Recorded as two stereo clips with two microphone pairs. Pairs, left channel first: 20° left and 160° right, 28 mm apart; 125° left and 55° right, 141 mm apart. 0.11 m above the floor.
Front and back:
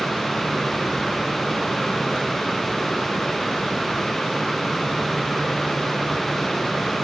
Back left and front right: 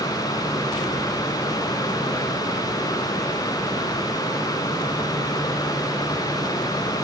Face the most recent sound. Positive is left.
No sound to turn to.